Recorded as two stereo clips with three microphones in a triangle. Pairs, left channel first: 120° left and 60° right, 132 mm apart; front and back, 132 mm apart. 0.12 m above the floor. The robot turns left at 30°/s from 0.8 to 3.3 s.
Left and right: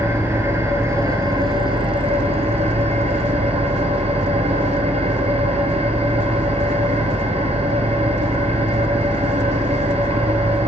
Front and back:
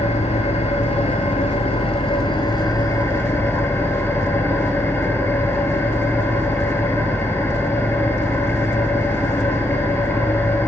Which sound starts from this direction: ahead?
An engine running, at 0.0 s.